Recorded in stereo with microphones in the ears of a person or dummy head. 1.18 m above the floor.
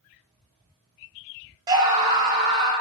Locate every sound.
1.7 s a scream: 20° right (ahead or behind), 0.5 m